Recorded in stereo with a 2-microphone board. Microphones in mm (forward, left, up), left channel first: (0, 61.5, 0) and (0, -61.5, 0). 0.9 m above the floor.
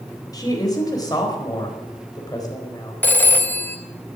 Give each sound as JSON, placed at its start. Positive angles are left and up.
{"t": 0.3, "sound": "a woman speaking", "side_deg": 30, "distance_m": 4.5}
{"t": 3.0, "sound": "a phone ringing", "side_deg": 15, "distance_m": 1.1}